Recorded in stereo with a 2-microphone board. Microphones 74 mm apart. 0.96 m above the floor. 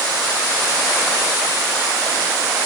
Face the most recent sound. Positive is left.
No sound to turn to.